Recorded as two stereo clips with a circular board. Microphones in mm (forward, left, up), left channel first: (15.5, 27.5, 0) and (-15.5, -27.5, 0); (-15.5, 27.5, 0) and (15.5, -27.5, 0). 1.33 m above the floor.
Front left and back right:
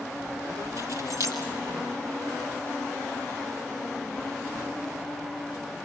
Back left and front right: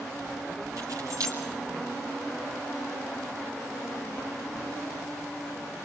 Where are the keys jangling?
90° right, 6 m.